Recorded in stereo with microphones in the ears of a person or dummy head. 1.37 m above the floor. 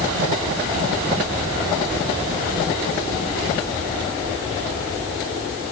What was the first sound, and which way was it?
Only background noise.